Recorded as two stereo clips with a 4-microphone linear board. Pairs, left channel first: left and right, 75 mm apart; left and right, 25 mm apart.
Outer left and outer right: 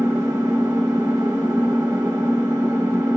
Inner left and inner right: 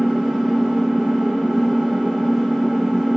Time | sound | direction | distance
0.0 | an engine running | 25° right (ahead or behind) | 6 m